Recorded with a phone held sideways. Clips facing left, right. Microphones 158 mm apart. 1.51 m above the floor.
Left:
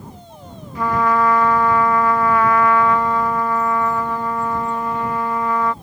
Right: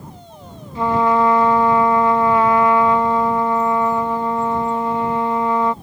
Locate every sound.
0.8 s a trumpet: 25° right (ahead or behind)